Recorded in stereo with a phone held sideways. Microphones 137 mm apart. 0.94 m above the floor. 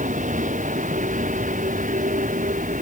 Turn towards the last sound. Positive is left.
turn(degrees=-70)  # may be behind; listen again after turning